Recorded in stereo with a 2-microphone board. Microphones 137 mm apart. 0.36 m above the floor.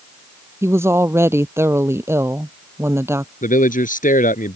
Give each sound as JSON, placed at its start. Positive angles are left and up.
{"t": 0.6, "sound": "a woman speaking", "side_deg": -20}
{"t": 3.4, "sound": "a man speaking", "side_deg": 80}